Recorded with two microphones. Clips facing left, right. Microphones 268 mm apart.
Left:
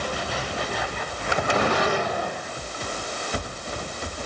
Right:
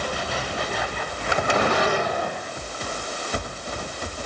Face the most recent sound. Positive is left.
No sound to turn to.